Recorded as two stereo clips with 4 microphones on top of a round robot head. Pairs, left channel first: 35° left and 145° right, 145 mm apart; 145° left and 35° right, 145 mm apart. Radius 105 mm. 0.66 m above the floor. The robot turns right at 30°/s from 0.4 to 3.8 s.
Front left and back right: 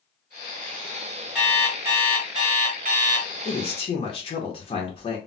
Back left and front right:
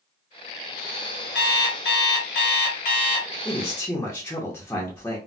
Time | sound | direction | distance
1.4 | an alarm clock | 125° left | 1.4 m
3.5 | a man speaking | 65° left | 0.8 m